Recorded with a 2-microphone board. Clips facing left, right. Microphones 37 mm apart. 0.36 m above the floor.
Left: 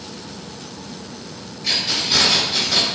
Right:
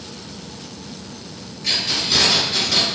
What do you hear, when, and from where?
1.6 s keys jangling: 5° left (ahead or behind), 0.8 m